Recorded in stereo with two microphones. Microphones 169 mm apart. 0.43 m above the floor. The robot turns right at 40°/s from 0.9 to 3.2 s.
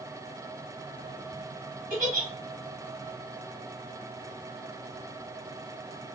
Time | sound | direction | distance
1.9 | a giggle | 65° right (ahead or behind) | 1.5 m